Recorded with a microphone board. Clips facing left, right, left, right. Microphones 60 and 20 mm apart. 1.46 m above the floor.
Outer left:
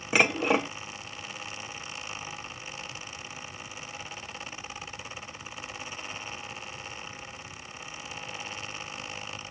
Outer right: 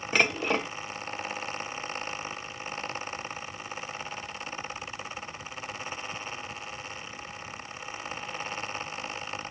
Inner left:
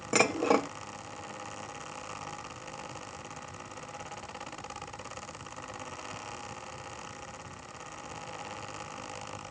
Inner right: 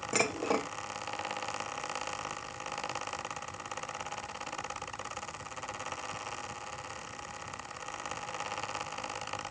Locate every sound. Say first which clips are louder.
0.1 s dishes clattering: outer left 2 dB, inner left 5 dB; 10° left (ahead or behind), 0.8 m